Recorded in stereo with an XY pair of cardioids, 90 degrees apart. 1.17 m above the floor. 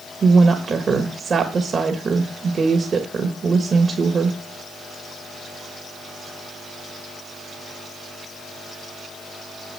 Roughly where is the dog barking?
No dog barking in this recording.